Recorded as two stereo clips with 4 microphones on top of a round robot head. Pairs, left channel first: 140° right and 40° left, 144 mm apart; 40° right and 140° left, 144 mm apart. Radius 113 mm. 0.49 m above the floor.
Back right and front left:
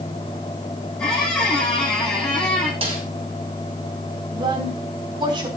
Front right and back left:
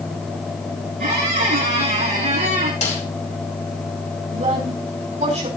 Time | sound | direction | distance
1.0 | a squeak | 135° left | 6 m
2.8 | a snare drum | 10° right | 5.5 m
4.3 | a woman speaking | 100° left | 5.5 m